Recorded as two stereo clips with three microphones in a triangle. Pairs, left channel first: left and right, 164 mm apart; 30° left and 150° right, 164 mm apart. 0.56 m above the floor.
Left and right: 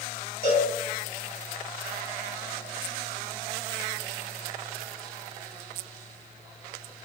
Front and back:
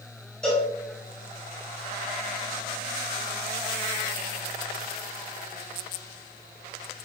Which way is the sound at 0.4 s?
115° left.